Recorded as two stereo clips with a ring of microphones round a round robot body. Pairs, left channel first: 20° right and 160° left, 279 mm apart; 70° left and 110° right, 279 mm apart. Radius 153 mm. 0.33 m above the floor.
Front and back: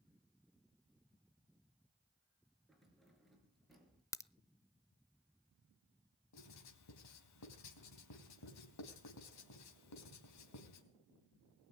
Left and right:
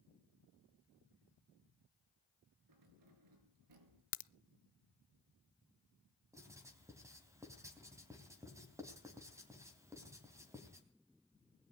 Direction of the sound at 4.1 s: 55° left.